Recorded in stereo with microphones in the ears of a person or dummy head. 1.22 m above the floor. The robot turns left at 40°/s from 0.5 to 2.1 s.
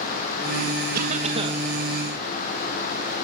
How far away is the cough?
About 1.1 m.